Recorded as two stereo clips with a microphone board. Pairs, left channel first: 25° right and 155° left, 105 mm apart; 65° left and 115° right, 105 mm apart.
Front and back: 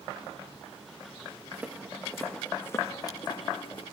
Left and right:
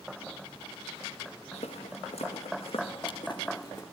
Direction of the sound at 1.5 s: 85° left.